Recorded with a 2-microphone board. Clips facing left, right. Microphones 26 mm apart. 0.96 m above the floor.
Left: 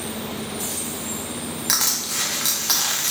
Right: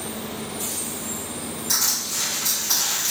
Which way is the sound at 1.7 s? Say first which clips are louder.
Left 1 dB; 70° left (ahead or behind).